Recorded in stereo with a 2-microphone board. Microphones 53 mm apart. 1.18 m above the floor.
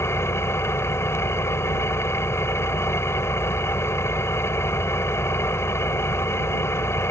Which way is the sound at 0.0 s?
55° left (ahead or behind).